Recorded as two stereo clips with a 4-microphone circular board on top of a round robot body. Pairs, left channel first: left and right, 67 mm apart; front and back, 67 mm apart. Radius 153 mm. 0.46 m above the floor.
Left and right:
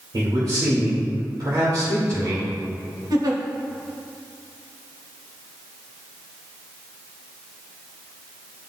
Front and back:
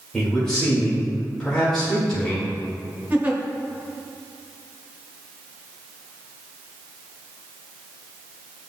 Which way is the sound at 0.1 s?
80° right.